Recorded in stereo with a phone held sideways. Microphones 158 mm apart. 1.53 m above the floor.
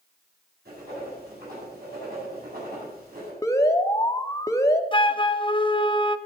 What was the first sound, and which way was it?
Writing, 85° right.